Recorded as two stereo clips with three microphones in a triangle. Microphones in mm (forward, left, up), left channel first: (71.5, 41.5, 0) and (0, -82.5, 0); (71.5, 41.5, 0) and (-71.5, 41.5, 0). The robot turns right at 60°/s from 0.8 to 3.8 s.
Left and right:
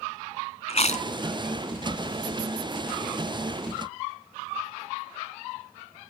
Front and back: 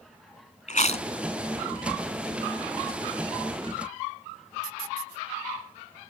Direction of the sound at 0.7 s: 25° left.